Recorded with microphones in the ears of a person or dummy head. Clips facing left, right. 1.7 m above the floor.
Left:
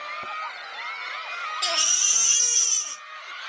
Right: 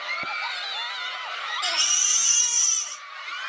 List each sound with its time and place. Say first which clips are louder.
1.6 s a baby crying: left 2 dB; 35° left (ahead or behind), 0.5 m